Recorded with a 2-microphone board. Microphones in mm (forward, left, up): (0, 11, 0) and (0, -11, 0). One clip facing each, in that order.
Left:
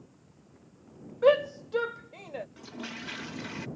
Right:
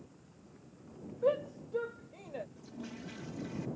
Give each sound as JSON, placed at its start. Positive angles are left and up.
{"t": 1.2, "sound": "a shout", "side_deg": 80}
{"t": 2.6, "sound": "a toilet flushing", "side_deg": 70}